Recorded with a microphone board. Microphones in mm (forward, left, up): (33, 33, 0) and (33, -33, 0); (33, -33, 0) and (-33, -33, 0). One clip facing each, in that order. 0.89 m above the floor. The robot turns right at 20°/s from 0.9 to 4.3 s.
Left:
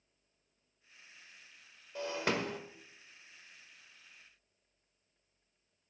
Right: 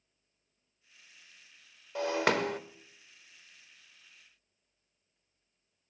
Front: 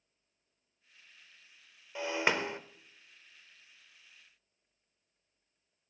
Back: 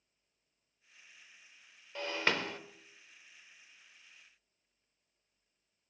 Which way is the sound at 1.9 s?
80° right.